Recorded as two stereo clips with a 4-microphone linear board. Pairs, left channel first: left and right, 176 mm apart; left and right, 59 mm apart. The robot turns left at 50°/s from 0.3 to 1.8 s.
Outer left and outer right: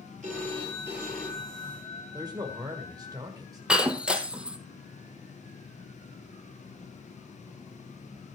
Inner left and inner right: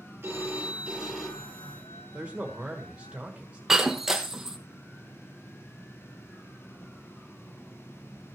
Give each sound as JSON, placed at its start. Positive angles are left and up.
{"t": 0.2, "sound": "a phone ringing", "azimuth_deg": -140, "distance_m": 5.5}
{"t": 2.1, "sound": "a man speaking", "side_deg": -20, "distance_m": 1.5}
{"t": 3.7, "sound": "breaking glass", "side_deg": -5, "distance_m": 1.1}